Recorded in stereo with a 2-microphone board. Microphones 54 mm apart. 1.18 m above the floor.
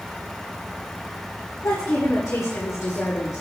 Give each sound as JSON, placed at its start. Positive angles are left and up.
{"t": 1.6, "sound": "a woman speaking", "side_deg": 60, "distance_m": 1.7}